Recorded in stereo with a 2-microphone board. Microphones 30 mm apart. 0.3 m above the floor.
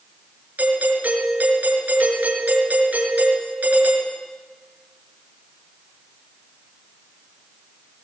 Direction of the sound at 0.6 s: 65° right (ahead or behind).